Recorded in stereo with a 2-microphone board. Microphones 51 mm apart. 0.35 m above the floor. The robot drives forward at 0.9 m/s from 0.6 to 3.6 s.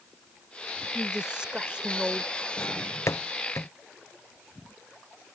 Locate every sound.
0.9 s a woman speaking: 15° right (ahead or behind)
2.6 s a drawer: 65° left (ahead or behind); by 3.7 s 70° left (ahead or behind)